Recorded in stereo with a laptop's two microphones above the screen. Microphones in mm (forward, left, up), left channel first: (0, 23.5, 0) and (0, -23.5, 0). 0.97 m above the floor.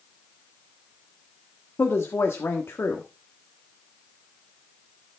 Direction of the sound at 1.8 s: 60° left (ahead or behind).